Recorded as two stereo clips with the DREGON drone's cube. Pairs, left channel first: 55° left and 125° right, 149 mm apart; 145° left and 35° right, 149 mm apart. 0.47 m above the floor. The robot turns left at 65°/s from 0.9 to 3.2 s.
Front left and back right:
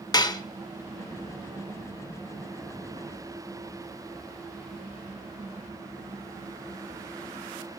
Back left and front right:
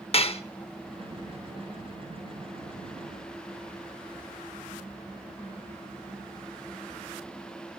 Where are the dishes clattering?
110° left, 0.7 m.